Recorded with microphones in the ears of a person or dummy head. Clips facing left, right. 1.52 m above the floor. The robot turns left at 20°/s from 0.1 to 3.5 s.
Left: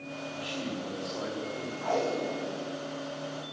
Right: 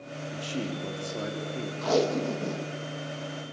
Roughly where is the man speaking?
Right.